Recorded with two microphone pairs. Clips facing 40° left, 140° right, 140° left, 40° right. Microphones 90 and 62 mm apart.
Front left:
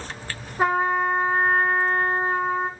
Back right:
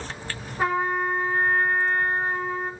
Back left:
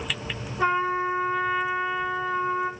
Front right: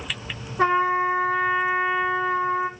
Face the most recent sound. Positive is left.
turn(degrees=-25)